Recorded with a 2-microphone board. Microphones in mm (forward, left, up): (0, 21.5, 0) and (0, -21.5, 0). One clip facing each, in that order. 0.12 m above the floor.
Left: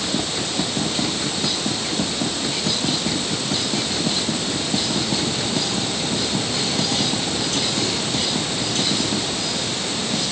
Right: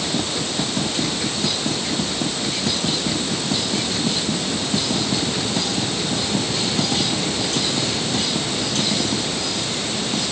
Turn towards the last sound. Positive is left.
No sound to turn to.